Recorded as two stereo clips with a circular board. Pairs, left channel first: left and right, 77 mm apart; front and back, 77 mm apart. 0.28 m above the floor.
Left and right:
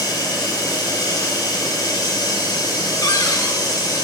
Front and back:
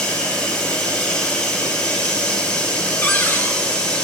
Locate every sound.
0.0 s running water: 75° left, 8 m
3.0 s a cupboard door: 60° left, 2.5 m